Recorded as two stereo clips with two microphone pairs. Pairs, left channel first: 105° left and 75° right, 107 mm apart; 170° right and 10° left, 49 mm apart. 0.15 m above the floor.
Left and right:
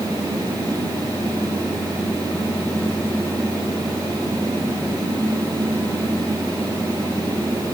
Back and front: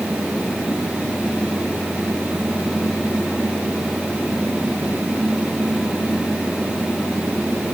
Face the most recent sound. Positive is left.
No sound to turn to.